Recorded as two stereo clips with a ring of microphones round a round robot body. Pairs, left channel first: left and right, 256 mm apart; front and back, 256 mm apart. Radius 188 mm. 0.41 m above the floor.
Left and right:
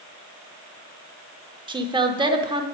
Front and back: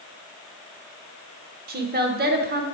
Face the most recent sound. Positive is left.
turn(degrees=-155)